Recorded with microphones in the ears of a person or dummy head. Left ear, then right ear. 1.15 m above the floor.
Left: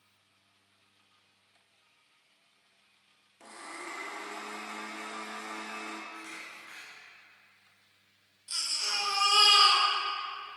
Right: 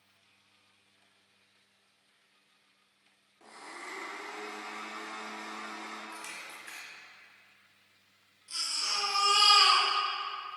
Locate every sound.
3.4 s a blender: 45° left (ahead or behind), 1.0 m
6.1 s a camera shutter: 40° right (ahead or behind), 1.1 m
8.5 s a baby crying: 20° left (ahead or behind), 1.2 m